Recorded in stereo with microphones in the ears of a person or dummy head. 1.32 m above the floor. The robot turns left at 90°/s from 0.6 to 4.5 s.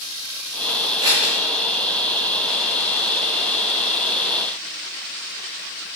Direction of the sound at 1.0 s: 25° right (ahead or behind).